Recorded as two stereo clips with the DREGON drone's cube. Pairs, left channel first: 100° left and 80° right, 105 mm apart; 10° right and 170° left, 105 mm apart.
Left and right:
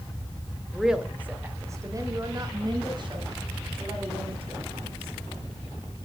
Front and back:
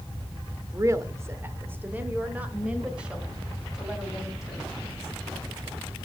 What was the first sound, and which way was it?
A woman speaking, 170° right.